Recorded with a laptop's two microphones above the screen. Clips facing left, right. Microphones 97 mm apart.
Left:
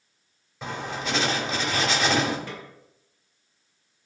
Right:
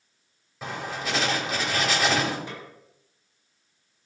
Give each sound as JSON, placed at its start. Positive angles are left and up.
{"t": 0.6, "sound": "writing", "side_deg": -5, "distance_m": 2.5}
{"t": 2.5, "sound": "a snare drum", "side_deg": -20, "distance_m": 1.9}